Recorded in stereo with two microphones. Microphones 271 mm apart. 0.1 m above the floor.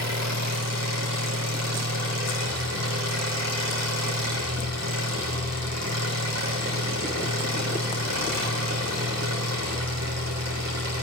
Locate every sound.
0.0 s an engine running: 80° right, 4.5 m